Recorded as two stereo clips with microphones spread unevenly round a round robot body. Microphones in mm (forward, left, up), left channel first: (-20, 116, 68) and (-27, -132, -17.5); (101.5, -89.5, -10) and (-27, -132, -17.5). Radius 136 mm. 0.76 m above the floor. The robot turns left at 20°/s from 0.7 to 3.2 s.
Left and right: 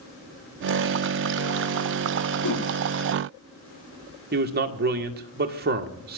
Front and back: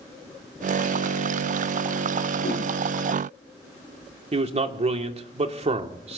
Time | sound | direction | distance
2.4 | a whoosh | 65° left | 7.5 m
4.3 | a man speaking | 130° right | 2.0 m